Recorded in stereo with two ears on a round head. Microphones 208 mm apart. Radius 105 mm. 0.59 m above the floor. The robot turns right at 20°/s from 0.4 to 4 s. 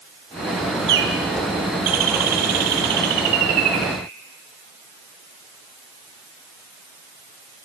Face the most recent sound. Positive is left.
turn(degrees=-65)